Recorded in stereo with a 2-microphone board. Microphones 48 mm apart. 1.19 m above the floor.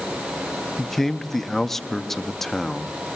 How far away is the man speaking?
About 0.5 m.